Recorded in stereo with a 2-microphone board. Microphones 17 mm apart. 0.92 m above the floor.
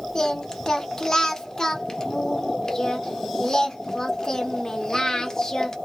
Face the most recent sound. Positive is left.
turn(degrees=30)  # may be behind; listen again after turning